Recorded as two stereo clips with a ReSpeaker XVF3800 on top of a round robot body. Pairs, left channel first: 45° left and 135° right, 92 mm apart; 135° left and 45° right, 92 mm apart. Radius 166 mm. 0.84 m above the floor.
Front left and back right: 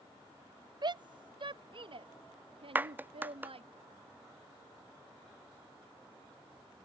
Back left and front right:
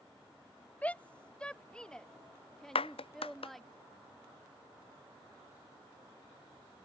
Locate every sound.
0.8 s a shout: 155° right; by 3.8 s 135° right
2.8 s a clap: 155° left